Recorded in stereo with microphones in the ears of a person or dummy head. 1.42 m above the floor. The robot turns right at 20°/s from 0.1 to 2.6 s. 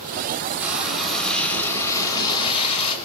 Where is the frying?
10° right, 7 m; by 3.0 s 30° left, 7 m.